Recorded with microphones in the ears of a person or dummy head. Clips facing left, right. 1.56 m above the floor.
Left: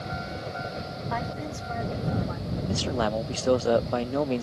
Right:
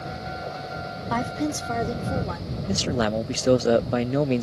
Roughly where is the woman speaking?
Right.